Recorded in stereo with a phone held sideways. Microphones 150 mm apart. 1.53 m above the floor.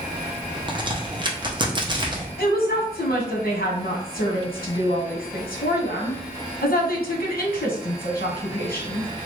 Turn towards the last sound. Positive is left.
turn(degrees=80)